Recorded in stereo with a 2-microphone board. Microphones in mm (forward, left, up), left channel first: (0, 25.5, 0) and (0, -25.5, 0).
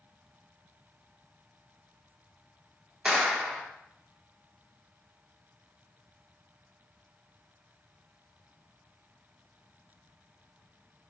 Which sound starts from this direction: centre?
A clap, at 3.0 s.